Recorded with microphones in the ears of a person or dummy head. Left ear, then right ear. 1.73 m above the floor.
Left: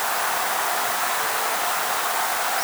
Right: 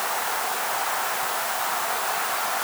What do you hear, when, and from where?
Only background noise.